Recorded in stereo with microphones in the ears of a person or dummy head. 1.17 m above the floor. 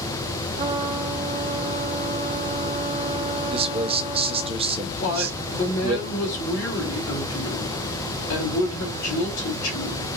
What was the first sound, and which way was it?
A trumpet, 25° right (ahead or behind).